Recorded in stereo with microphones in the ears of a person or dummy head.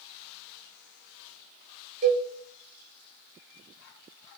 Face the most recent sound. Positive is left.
turn(degrees=-45)  # may be behind; listen again after turning